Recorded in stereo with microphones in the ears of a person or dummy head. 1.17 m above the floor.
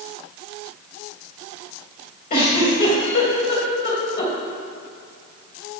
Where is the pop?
I don't hear a pop.